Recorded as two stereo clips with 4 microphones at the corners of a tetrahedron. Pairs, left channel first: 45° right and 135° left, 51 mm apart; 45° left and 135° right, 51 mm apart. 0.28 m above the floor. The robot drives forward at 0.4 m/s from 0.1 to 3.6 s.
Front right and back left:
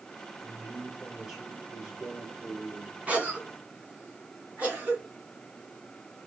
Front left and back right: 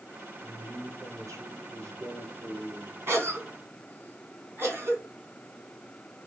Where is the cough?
165° right, 3 m.